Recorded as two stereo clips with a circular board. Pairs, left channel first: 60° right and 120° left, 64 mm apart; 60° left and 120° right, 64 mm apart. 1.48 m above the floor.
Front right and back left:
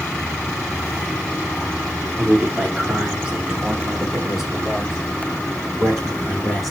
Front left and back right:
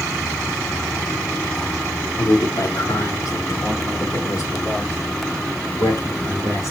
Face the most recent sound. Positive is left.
turn(degrees=30)